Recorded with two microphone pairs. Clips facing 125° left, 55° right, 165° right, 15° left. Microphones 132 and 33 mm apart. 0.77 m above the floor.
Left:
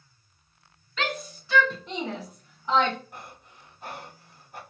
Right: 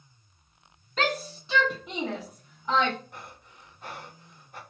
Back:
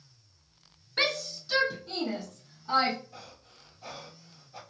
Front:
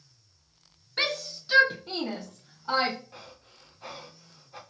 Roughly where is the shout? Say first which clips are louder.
Right 3 dB, back 1 dB; right.